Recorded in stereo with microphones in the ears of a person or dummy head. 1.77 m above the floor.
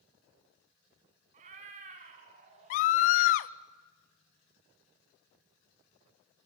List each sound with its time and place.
1.3 s a cat meowing: 40° right (ahead or behind), 2.5 m
2.7 s a scream: 45° left (ahead or behind), 0.7 m